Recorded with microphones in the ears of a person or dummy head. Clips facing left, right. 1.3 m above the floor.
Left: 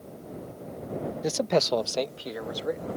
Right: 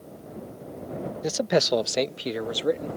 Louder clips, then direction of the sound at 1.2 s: Right 2 dB; centre (ahead or behind).